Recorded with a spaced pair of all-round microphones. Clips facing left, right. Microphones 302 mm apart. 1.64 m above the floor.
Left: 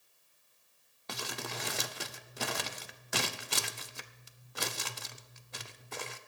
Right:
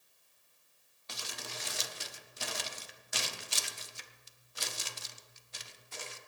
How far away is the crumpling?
About 0.7 m.